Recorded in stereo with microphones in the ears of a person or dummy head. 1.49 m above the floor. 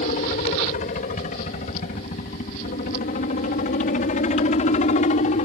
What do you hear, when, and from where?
0.0 s a helicopter: 40° left (ahead or behind)